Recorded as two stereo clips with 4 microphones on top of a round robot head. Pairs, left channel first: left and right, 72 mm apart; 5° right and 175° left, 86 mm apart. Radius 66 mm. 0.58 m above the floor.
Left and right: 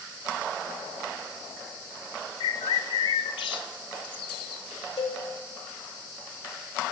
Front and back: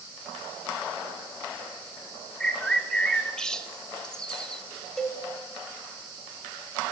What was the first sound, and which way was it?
A bird, 80° left.